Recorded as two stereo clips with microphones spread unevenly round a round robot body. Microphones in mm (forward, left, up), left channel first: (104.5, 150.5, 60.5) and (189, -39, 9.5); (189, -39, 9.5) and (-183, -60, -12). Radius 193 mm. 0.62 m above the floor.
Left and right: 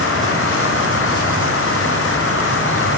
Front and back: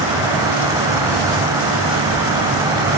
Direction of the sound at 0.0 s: 100° left.